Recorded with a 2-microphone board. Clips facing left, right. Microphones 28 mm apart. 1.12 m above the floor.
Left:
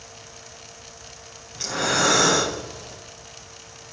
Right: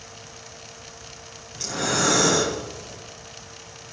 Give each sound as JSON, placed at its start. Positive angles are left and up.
{"t": 1.6, "sound": "breathing", "side_deg": 20, "distance_m": 3.0}